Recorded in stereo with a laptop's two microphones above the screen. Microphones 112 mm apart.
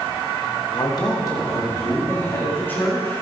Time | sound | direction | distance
0.7 | a man speaking | 45° left (ahead or behind) | 1.1 m